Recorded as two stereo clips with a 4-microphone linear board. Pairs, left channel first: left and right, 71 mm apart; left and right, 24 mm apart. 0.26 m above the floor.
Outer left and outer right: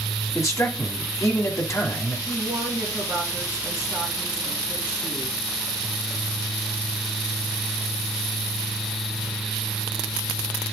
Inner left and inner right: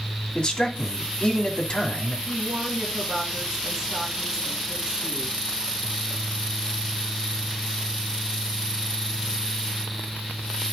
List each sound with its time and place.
0.3 s a man speaking: 45° left (ahead or behind), 2.0 m
2.3 s a woman speaking: 15° right (ahead or behind), 3.5 m